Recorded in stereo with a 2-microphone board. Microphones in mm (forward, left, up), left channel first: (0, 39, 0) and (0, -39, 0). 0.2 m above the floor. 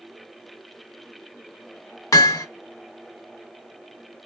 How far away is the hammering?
About 0.5 m.